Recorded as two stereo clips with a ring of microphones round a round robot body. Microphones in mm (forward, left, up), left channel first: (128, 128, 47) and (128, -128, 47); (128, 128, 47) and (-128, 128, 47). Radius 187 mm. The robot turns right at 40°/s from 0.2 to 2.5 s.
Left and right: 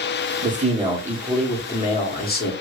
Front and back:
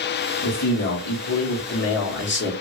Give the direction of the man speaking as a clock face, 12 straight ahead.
1 o'clock.